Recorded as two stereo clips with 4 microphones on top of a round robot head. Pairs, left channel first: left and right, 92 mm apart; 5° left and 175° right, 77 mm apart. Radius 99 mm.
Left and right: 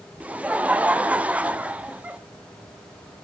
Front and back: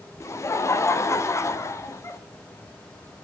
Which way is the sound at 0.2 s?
20° right.